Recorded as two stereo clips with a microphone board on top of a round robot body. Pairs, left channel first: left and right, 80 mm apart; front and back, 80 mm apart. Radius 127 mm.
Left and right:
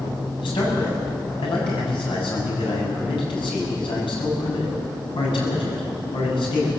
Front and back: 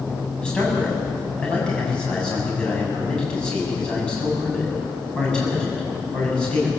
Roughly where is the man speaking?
Left.